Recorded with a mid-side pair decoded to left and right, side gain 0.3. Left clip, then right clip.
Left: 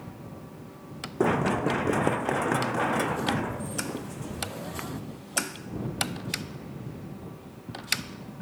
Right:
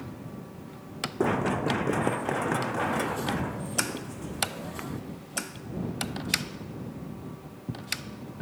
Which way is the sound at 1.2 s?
25° left.